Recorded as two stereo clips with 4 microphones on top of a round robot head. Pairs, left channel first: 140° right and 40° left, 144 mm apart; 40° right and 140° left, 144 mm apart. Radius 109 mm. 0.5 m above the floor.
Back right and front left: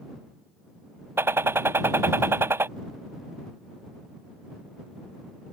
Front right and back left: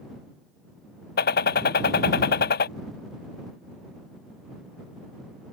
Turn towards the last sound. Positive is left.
turn(degrees=-35)